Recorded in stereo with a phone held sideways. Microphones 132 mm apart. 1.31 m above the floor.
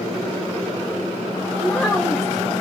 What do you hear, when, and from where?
1.6 s a child speaking: centre (ahead or behind), 0.6 m